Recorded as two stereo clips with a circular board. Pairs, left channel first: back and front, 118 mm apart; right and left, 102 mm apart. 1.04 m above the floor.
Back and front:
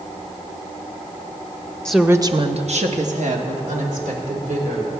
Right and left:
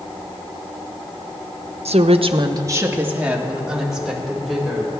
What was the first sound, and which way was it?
A woman speaking, 100° left.